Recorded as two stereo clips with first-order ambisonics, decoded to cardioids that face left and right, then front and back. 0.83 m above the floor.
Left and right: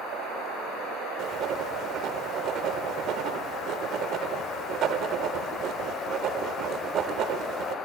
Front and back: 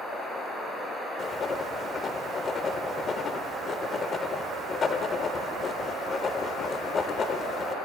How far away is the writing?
About 0.6 m.